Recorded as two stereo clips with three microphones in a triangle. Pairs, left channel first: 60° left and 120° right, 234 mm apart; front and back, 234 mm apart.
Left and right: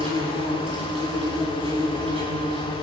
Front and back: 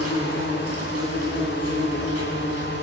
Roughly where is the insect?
Behind.